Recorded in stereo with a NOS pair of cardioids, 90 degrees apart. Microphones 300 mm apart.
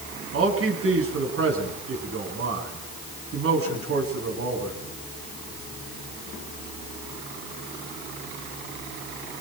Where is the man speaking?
50° right, 9.5 m.